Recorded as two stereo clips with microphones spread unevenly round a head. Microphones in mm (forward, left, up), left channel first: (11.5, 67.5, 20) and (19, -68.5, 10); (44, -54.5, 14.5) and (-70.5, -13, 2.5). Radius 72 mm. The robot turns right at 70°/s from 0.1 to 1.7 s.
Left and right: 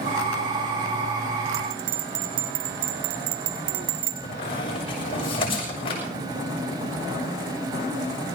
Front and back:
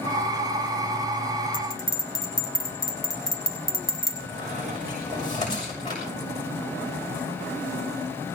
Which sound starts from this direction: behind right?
A bell, at 1.5 s.